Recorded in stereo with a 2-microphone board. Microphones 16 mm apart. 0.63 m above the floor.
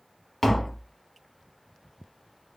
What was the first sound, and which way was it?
Tapping, 20° left (ahead or behind).